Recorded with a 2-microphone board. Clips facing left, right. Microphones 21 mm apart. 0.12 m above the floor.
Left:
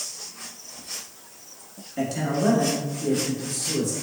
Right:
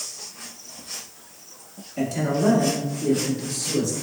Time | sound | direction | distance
2.0 | a man speaking | 15° left (ahead or behind) | 1.5 m